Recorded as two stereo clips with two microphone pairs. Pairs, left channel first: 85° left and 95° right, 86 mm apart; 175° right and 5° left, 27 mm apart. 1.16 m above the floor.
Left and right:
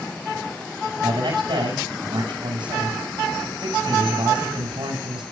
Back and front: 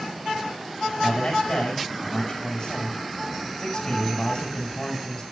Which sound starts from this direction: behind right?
A man speaking, at 1.0 s.